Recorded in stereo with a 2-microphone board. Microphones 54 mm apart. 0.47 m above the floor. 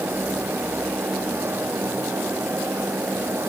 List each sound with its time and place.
Only background noise.